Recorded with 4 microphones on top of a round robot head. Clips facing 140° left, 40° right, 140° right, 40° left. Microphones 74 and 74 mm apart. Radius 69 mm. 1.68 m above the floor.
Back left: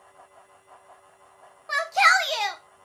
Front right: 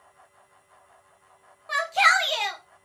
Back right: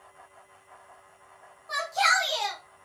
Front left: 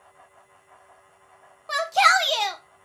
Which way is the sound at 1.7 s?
65° left.